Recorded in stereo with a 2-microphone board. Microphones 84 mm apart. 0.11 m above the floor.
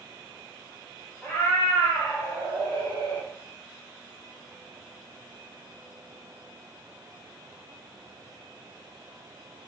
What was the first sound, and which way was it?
A cat meowing, 5° left (ahead or behind).